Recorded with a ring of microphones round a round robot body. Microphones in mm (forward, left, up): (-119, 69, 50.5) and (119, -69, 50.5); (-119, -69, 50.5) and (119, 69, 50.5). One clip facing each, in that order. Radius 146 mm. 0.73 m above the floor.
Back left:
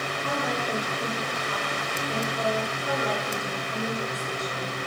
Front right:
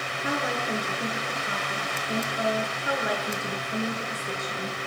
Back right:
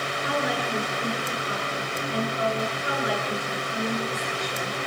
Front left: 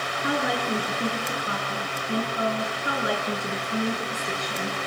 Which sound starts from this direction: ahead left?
A woman speaking, at 0.2 s.